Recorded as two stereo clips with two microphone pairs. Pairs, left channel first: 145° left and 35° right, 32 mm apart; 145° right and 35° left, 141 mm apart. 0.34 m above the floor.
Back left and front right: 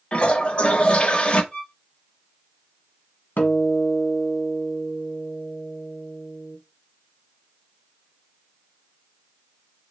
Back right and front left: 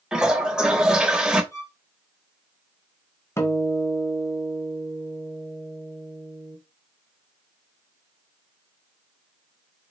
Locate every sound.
0.1 s a toilet flushing: 120° left, 0.6 m
1.5 s a violin: 170° left, 1.5 m
3.4 s a guitar: 145° left, 0.8 m